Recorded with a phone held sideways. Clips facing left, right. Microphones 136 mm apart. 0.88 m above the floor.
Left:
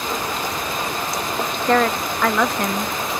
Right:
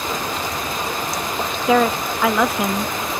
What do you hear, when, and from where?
1.7 s a woman speaking: 5° right (ahead or behind)